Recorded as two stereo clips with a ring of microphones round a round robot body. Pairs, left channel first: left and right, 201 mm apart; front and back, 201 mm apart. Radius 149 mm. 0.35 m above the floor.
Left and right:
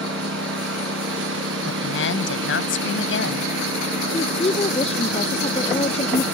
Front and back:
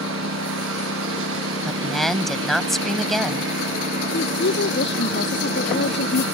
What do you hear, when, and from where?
0.0 s a lawn mower: 135° right; by 6.3 s 130° right
1.6 s a woman speaking: 90° left
4.1 s a woman speaking: 30° left